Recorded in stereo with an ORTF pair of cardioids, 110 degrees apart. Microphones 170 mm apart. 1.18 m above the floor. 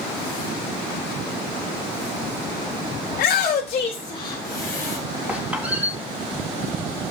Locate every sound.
3.1 s a shout: 60° left, 1.0 m; by 5.0 s 15° left, 1.9 m
5.3 s a squeak: 10° right, 3 m